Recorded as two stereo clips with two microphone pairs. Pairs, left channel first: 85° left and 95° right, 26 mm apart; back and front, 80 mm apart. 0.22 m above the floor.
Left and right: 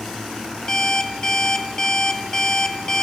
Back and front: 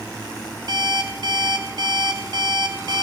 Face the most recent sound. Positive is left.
turn(degrees=25)